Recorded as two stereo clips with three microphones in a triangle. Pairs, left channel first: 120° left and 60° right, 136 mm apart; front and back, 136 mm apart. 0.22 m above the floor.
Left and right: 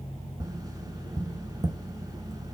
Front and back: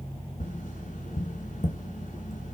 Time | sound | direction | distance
0.4 | tapping | straight ahead | 0.7 m